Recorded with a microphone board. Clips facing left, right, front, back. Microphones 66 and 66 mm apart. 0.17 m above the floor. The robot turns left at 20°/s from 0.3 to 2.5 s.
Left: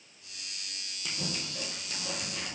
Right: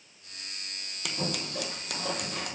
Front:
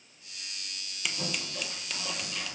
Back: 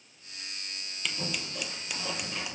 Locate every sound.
1.1 s scissors: 85° right, 0.9 m; by 2.5 s 110° right, 0.9 m